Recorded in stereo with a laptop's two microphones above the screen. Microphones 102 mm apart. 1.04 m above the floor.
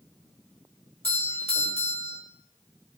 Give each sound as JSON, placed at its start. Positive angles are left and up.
{"t": 1.0, "sound": "a doorbell", "side_deg": 80, "distance_m": 5.5}